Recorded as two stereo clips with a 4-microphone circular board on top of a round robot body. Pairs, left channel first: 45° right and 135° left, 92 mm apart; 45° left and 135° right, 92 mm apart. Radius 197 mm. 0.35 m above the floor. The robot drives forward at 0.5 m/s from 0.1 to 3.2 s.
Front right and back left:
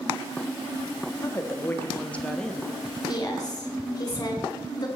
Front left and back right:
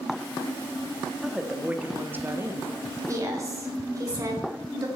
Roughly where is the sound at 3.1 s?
Right.